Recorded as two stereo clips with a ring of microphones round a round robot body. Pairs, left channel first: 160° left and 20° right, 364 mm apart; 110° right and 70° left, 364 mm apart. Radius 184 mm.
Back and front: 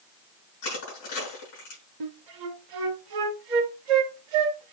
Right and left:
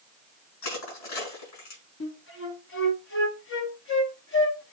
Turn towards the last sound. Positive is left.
turn(degrees=-55)